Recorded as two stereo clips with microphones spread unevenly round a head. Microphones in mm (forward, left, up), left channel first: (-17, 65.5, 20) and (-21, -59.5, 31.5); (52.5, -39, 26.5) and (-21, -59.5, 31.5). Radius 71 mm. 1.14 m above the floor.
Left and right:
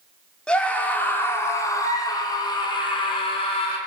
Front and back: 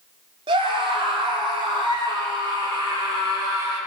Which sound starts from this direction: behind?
A scream, at 0.5 s.